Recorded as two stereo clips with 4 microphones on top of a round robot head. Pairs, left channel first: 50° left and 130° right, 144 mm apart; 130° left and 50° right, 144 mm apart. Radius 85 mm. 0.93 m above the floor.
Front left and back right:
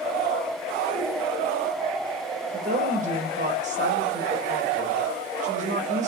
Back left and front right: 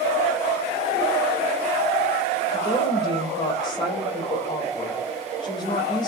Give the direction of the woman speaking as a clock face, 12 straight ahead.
6 o'clock.